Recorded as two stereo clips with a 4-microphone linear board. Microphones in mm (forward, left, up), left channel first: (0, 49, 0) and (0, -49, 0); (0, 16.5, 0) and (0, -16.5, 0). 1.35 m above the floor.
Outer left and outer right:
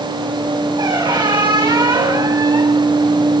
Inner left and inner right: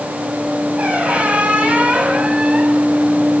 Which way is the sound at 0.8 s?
50° right (ahead or behind).